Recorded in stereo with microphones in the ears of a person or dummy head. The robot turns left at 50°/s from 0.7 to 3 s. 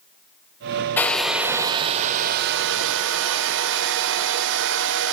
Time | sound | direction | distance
1.0 | a hair dryer | 10° left | 0.7 m